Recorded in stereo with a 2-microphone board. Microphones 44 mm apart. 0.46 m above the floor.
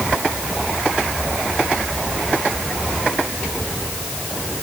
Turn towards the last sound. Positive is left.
No sound to turn to.